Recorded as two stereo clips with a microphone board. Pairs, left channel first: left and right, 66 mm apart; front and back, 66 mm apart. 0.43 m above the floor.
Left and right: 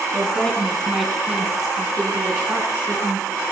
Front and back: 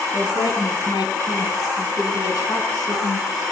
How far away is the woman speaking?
About 4 m.